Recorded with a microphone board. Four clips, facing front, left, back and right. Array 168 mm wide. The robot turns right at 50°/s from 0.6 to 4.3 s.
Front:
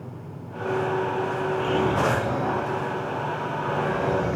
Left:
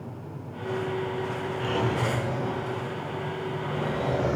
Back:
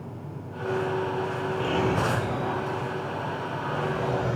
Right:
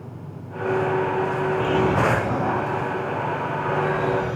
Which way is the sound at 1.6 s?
90° right.